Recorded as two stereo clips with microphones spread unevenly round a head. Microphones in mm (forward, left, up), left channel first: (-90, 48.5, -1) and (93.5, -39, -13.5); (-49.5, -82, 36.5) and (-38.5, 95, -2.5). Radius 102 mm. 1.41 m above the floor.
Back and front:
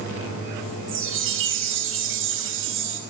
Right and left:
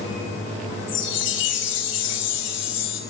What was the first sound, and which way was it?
A chime, 60° right.